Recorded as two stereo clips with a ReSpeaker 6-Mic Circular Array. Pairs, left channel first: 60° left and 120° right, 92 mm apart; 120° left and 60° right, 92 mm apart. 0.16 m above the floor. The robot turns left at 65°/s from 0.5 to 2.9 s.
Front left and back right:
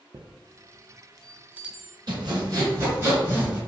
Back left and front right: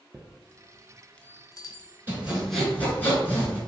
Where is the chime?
120° right, 0.5 m; by 2.0 s 145° left, 0.5 m.